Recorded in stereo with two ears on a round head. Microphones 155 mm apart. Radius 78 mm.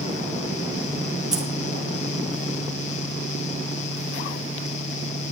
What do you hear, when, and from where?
1.3 s keys jangling: 5° right (ahead or behind), 1.9 m